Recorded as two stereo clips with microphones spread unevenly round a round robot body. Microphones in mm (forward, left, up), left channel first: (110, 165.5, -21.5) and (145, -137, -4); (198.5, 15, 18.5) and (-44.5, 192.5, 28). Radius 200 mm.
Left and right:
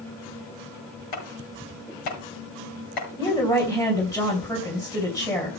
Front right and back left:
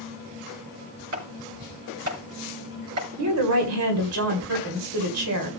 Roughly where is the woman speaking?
Behind.